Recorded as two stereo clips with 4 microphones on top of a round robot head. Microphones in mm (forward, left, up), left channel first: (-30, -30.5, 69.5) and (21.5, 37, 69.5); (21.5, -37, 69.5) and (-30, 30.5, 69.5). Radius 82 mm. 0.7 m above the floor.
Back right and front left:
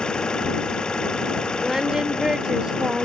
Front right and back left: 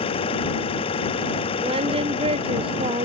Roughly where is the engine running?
Ahead right.